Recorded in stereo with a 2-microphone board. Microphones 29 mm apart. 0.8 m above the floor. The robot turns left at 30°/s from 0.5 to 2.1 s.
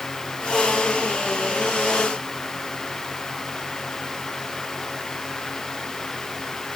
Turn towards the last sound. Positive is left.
No sound to turn to.